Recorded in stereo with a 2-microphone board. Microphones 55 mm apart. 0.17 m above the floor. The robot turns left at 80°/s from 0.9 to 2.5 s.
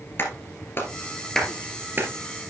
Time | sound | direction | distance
0.2 | a clap | 40° left (ahead or behind) | 2 m